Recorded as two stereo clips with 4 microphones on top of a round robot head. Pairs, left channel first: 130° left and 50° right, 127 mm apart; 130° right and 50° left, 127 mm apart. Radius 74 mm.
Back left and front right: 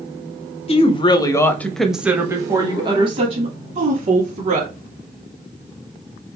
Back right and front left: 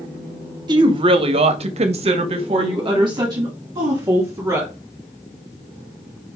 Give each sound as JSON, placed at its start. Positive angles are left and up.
{"t": 0.7, "sound": "a woman speaking", "azimuth_deg": 100, "distance_m": 1.0}